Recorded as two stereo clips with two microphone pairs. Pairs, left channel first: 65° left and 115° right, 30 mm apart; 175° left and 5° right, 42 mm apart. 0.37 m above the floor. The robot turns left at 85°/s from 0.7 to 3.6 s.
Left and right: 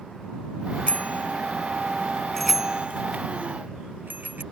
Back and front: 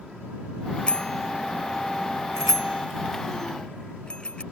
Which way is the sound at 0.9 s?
110° left.